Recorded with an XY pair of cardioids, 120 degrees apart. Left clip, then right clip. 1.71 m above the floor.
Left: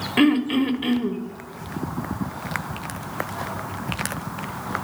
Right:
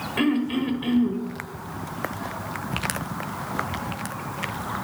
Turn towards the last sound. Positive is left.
turn(degrees=45)